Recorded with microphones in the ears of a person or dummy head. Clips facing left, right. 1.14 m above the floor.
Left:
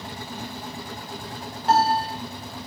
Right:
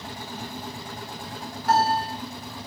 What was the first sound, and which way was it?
A piano, 25° left (ahead or behind).